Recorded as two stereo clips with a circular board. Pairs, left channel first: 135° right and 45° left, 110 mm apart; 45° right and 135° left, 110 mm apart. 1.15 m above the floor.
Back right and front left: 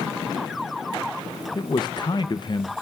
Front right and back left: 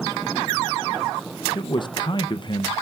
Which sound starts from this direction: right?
A man speaking, at 1.6 s.